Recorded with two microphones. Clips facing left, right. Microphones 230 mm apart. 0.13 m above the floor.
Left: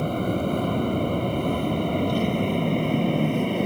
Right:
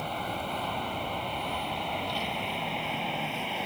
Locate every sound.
0.0 s an aircraft: 50° left (ahead or behind)